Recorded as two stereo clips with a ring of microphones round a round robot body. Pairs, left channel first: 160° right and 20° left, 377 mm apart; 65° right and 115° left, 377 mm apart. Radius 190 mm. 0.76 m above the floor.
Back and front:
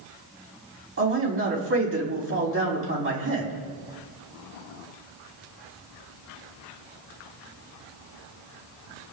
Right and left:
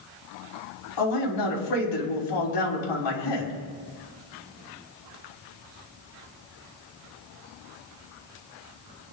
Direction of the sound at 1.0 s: 35° right.